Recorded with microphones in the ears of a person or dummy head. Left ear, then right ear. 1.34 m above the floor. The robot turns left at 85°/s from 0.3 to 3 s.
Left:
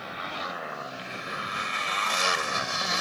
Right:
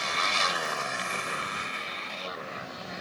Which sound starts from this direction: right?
A motorcycle, at 0.0 s.